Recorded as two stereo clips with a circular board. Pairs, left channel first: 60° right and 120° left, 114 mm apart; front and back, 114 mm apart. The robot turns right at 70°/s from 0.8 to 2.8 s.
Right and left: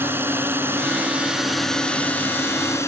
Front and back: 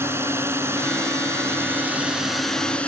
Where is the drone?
155° left; by 2.9 s 65° right.